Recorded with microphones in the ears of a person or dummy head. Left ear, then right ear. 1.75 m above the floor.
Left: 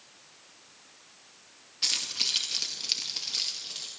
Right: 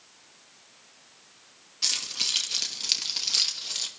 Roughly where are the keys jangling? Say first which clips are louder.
Right 1 dB; centre.